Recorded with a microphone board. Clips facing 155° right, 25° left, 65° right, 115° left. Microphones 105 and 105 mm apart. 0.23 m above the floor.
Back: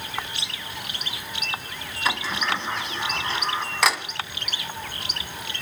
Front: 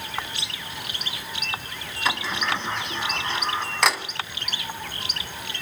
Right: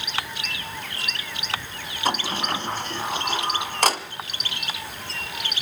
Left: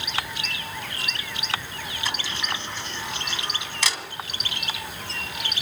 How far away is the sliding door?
About 1.3 m.